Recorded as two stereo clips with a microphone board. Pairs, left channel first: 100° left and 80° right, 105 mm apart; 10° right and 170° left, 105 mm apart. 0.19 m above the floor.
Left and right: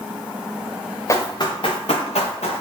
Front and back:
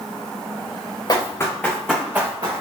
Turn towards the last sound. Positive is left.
turn(degrees=115)